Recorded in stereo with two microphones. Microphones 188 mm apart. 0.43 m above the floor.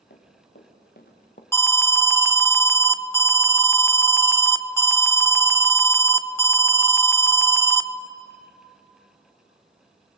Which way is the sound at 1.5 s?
15° left (ahead or behind).